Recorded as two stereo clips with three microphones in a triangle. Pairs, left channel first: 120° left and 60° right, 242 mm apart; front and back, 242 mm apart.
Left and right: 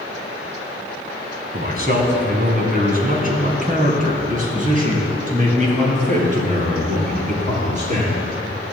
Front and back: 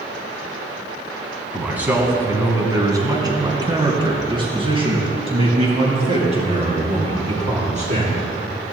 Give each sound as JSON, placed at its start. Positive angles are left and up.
{"t": 1.5, "sound": "a man speaking", "azimuth_deg": -95, "distance_m": 1.9}